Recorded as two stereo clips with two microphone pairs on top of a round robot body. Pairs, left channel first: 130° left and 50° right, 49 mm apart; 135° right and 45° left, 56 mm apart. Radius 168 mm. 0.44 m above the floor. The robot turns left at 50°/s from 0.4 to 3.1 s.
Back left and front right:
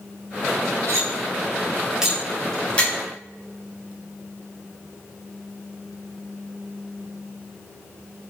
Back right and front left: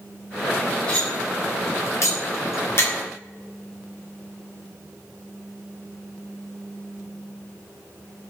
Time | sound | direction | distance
0.9 | cutlery clinking | 70° right | 1.4 m